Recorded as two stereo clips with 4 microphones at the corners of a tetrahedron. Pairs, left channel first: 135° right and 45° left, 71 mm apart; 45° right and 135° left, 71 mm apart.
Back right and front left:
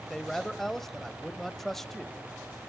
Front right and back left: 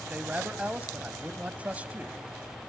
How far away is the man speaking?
About 0.9 m.